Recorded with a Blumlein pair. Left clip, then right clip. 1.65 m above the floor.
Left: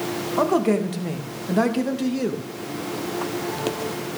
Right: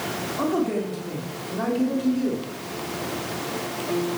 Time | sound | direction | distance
0.4 | a man speaking | 45° left | 2.5 m